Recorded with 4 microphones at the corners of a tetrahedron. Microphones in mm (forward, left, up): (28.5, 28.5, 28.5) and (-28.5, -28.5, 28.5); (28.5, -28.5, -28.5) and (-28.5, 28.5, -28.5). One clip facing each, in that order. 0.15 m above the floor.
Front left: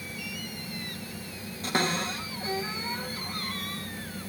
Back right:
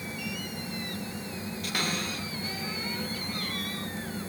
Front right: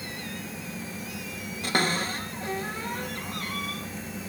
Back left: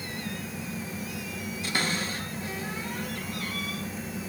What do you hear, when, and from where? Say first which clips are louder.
1.6 s a cupboard door: front left 6 dB, front right 4 dB; 10° right, 3 m